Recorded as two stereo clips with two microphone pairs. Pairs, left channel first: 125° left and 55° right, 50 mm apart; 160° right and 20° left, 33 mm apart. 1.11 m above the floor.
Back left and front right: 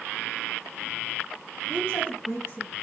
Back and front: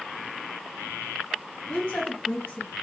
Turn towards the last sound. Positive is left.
turn(degrees=160)